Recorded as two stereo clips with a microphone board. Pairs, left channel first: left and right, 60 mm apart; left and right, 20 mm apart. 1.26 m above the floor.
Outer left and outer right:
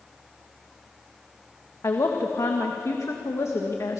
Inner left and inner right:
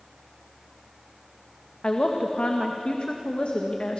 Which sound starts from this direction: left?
A woman speaking, at 1.8 s.